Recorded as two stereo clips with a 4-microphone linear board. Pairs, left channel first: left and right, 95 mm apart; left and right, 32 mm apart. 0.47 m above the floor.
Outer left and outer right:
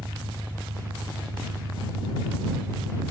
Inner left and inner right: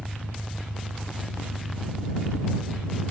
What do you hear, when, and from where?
0.0 s an engine running: 25° right (ahead or behind)